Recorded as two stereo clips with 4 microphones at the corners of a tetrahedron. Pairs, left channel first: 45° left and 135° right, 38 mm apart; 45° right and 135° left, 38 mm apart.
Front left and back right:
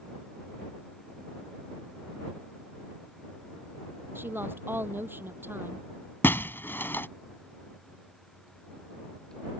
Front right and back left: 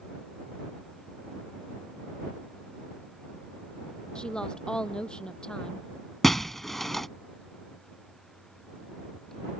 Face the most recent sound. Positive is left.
turn(degrees=40)